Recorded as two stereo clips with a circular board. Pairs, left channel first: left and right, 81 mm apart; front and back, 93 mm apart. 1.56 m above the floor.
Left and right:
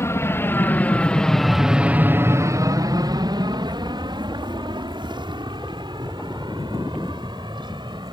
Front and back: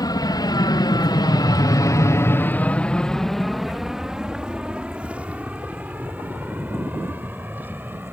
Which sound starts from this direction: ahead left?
An aircraft, at 0.0 s.